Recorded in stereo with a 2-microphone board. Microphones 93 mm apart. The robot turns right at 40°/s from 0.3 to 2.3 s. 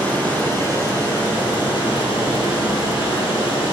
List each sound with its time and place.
0.0 s running water: 15° left, 3 m; by 3.7 s 95° left, 3 m